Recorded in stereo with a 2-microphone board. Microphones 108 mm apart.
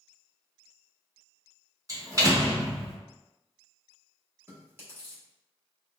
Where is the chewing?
20° right (ahead or behind), 1.2 m.